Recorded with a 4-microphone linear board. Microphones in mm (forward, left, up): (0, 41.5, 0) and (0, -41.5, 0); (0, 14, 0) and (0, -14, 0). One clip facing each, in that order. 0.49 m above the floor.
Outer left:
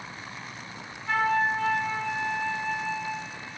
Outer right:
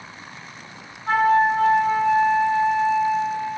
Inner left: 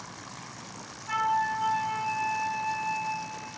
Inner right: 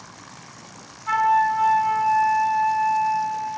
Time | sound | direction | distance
1.1 | a flute | 60° right (ahead or behind) | 2 m